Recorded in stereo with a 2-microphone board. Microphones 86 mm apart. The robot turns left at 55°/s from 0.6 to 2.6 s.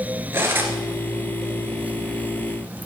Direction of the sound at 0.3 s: 25° right (ahead or behind).